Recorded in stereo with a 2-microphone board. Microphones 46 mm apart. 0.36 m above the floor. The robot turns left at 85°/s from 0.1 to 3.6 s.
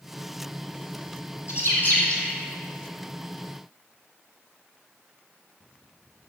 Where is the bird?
75° left (ahead or behind), 2.5 m; by 2.4 s centre (ahead or behind), 2.5 m.